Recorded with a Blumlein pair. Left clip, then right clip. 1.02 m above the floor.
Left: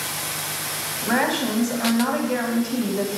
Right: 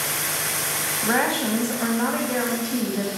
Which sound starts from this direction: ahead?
A woman speaking, at 1.0 s.